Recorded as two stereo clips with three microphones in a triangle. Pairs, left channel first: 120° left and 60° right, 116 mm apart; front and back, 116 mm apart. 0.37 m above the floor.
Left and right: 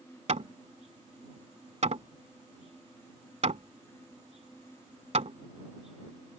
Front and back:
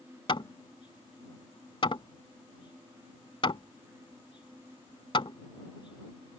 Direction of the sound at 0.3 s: 45° right.